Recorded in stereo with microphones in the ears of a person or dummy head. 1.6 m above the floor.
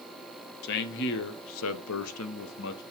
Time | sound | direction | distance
0.6 | a man speaking | 55° left (ahead or behind) | 1.6 m